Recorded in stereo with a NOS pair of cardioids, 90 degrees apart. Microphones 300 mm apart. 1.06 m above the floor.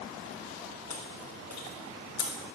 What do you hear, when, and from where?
0.9 s chewing: 65° left, 4 m